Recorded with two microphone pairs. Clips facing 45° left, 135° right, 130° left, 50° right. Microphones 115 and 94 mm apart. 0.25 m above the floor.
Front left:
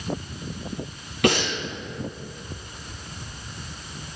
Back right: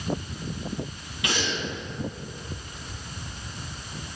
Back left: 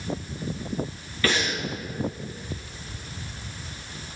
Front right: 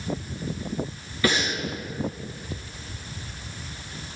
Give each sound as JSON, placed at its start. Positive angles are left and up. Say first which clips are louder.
{"t": 1.2, "sound": "breathing", "louder": "front left 7 dB, front right 1 dB", "azimuth_deg": 25, "distance_m": 3.5}